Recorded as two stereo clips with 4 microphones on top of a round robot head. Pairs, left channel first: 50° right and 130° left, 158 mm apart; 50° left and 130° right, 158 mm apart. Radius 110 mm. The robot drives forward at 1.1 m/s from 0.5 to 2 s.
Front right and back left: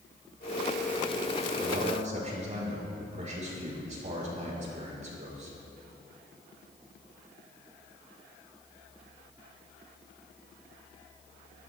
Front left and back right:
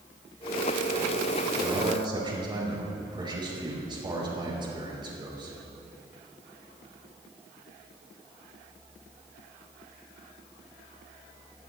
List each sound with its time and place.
1.6 s a man speaking: 170° left, 4.5 m